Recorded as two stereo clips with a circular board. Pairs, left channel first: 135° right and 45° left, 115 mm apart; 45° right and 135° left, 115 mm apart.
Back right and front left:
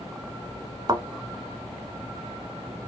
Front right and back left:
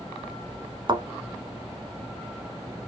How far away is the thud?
About 1.1 m.